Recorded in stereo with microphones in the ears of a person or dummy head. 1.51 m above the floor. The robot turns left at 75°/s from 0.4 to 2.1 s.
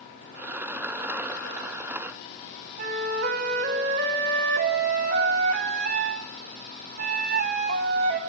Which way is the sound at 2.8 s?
50° right (ahead or behind).